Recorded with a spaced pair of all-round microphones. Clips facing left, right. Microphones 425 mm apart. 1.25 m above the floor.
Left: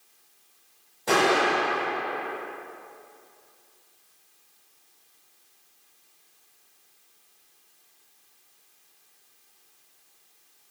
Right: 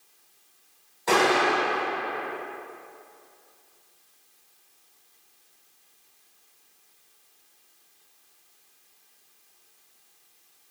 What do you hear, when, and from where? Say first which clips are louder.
1.1 s an explosion: even; 45° left (ahead or behind), 1.9 m